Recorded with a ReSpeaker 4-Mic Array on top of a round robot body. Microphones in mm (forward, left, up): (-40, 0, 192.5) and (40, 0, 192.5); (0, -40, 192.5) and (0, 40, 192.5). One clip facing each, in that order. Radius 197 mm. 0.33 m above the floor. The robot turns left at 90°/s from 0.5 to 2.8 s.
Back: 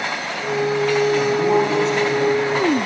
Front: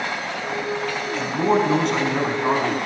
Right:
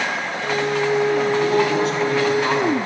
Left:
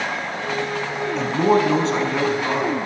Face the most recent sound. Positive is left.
turn(degrees=-50)